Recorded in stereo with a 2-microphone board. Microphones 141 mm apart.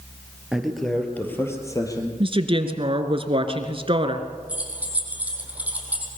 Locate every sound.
0.5 s a man speaking: 5° right (ahead or behind), 3 m; by 2.1 s 30° left (ahead or behind), 4 m
2.2 s a woman speaking: 40° right (ahead or behind), 1.7 m
4.5 s keys jangling: 10° right (ahead or behind), 4 m